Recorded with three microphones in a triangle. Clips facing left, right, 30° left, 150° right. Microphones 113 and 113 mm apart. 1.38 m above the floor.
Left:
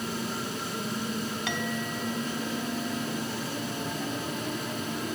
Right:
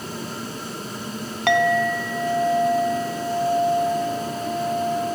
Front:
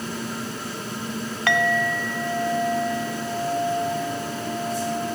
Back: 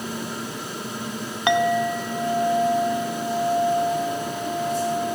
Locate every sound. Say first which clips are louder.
1.5 s a clink: right 13 dB, back 3 dB; 80° right, 0.8 m